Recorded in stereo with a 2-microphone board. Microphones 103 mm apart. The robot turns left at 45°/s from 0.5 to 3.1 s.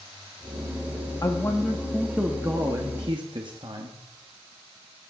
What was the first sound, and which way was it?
A man speaking, 30° left.